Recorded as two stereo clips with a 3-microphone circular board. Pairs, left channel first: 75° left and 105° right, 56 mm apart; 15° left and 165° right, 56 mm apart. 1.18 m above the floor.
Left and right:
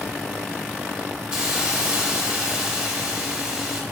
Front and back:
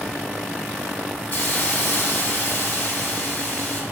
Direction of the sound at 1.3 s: 30° right.